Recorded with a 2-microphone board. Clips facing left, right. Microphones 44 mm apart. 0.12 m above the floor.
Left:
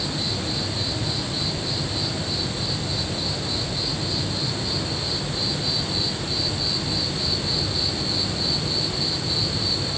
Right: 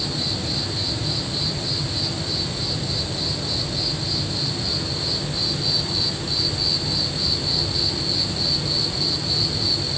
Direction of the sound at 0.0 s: 20° left (ahead or behind).